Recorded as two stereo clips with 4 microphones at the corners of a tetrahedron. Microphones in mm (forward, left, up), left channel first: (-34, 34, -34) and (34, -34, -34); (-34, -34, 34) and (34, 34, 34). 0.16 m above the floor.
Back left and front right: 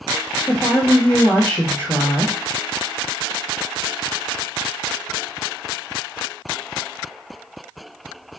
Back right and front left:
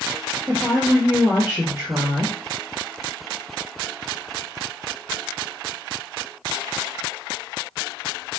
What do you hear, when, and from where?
0.5 s a woman speaking: 95° left, 2.5 m